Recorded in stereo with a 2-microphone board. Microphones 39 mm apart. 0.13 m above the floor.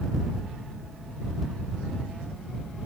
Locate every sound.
Only background noise.